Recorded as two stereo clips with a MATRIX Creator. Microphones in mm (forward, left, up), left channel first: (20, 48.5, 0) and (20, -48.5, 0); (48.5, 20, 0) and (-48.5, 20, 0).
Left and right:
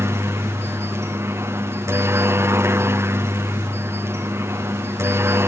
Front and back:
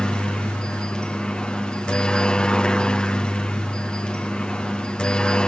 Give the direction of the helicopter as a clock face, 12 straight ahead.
2 o'clock.